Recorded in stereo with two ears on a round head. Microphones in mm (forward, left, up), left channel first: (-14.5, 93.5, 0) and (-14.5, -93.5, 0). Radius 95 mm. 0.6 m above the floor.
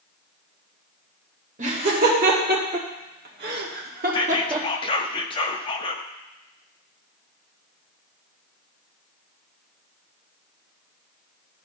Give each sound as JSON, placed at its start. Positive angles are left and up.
{"t": 1.6, "sound": "laughter", "side_deg": -35, "distance_m": 2.5}
{"t": 4.1, "sound": "whispering", "side_deg": 25, "distance_m": 0.6}